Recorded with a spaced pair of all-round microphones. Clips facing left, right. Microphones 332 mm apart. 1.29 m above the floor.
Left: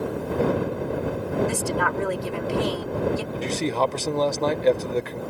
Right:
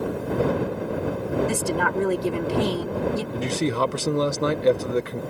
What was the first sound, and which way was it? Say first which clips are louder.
A woman speaking: right 1 dB; 45° right (ahead or behind).